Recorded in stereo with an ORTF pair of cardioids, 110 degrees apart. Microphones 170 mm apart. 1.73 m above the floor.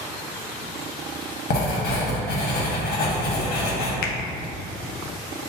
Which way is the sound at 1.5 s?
60° left.